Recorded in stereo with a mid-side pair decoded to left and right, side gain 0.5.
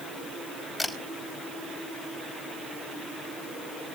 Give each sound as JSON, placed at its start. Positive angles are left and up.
{"t": 0.8, "sound": "a camera shutter", "azimuth_deg": 5, "distance_m": 5.0}